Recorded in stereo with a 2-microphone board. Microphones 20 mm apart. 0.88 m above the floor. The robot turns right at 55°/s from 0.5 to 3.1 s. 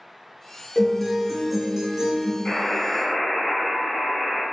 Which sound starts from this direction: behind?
A guitar, at 0.8 s.